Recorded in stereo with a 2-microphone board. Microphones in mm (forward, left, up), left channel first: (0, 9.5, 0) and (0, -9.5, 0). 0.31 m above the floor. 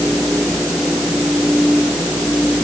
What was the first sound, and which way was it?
Only background noise.